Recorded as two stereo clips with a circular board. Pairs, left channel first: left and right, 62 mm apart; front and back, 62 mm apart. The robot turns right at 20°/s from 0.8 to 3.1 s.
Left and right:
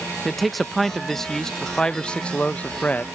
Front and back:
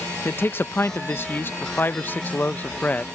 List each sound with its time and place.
0.2 s a man speaking: straight ahead; by 3.0 s 50° left